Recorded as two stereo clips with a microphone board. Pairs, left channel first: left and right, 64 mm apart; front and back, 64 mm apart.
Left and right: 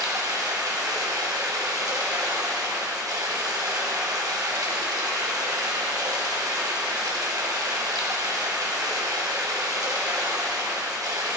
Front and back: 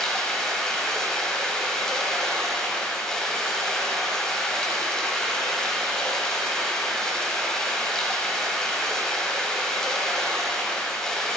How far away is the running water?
About 2 m.